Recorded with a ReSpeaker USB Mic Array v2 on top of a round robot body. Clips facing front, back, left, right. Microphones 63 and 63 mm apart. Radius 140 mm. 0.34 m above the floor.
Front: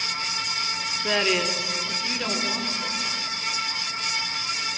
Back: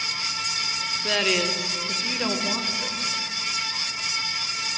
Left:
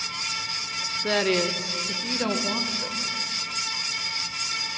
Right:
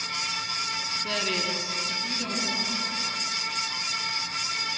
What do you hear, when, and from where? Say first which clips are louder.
1.0 s a woman speaking: front 1 dB, left 8 dB; 70° left, 1.1 m; by 3.6 s 115° left, 2 m